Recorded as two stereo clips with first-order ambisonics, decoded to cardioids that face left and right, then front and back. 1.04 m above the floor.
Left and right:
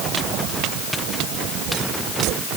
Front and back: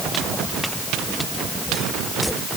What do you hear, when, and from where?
Only background noise.